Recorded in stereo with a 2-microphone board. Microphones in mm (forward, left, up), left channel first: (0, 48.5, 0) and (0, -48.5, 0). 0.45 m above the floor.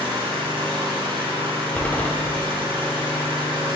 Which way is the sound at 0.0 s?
65° right (ahead or behind).